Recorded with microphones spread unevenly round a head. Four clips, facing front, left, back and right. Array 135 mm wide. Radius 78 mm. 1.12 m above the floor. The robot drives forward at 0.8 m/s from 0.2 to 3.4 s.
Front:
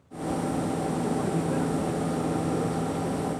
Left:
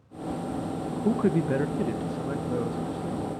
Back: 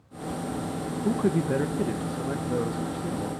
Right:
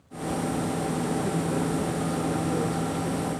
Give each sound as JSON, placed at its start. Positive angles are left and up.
{"t": 1.1, "sound": "a man speaking", "azimuth_deg": 125, "distance_m": 0.7}